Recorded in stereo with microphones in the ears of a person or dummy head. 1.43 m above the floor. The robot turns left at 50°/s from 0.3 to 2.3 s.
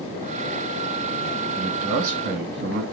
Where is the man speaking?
25° right, 1.3 m; by 2.8 s 60° right, 1.3 m.